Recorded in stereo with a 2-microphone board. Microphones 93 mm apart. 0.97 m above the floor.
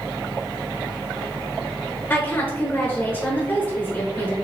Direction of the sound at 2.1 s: 25° left (ahead or behind).